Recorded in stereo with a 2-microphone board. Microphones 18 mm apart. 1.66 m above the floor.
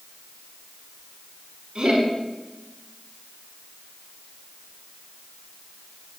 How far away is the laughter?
About 4.5 m.